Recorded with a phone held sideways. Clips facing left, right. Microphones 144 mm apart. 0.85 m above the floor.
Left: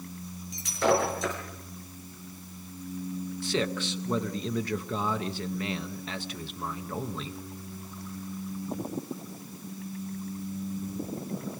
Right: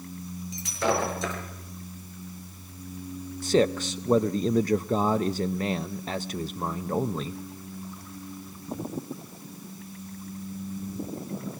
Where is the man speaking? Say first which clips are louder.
Right 8 dB; 40° right (ahead or behind), 0.6 m.